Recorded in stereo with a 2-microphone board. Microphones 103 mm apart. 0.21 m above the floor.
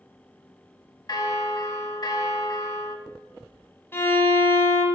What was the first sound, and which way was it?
A bell, 45° left (ahead or behind).